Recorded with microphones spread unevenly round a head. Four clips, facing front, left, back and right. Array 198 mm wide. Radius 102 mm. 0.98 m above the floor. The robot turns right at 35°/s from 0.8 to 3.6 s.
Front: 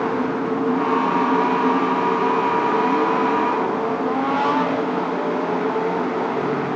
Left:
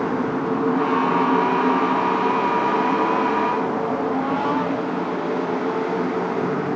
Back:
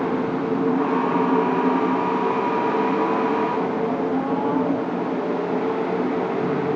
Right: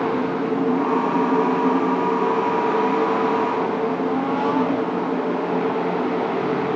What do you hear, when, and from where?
Only background noise.